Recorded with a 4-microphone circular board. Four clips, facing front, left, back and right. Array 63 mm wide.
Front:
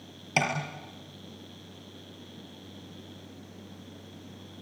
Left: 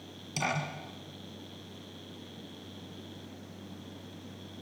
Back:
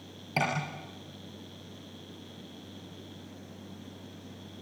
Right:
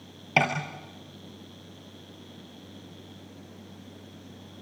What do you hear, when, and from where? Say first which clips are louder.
0.4 s tapping: right 9 dB, front 2 dB; 75° right, 5 m